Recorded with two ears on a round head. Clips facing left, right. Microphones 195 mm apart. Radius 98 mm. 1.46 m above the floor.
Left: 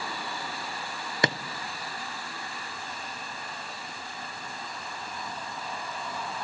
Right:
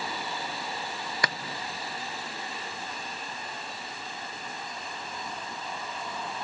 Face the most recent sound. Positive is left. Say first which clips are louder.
# left 7 dB
turn(degrees=20)  # may be behind; listen again after turning